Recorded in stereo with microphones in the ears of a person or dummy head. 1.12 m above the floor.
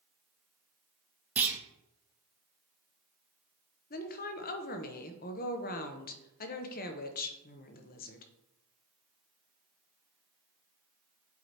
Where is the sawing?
I don't hear sawing.